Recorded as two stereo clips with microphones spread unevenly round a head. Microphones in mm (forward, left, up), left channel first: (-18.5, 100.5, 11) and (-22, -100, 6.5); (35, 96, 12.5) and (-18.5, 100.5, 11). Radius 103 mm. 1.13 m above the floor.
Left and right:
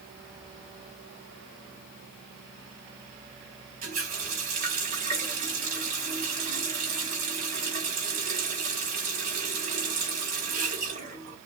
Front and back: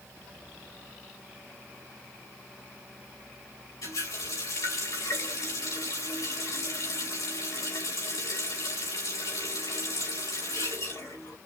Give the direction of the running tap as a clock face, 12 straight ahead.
1 o'clock.